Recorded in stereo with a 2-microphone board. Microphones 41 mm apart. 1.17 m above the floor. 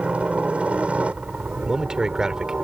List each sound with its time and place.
0.0 s a helicopter: 30° right (ahead or behind); by 2.6 s 35° right (ahead or behind)
1.6 s a man speaking: 20° right (ahead or behind)